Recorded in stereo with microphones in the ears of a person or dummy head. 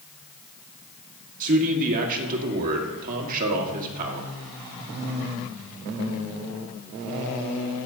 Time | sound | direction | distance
1.4 | a man speaking | 50° right (ahead or behind) | 1.8 m